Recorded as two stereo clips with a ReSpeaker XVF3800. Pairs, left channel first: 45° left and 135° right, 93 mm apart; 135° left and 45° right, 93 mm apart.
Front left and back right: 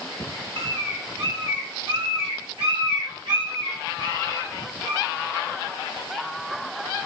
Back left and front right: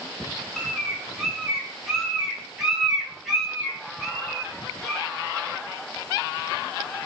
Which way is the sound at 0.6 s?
135° right.